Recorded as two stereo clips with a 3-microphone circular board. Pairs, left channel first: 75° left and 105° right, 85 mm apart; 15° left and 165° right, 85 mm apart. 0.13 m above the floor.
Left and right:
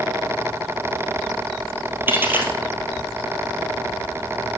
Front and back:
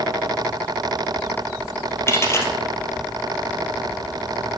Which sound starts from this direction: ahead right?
A dropped coin, at 2.1 s.